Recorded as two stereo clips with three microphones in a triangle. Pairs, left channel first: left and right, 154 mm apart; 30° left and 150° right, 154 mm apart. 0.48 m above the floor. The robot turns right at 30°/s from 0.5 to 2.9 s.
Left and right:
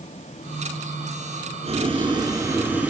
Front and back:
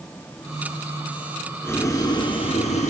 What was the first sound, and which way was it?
Boiling, 45° right.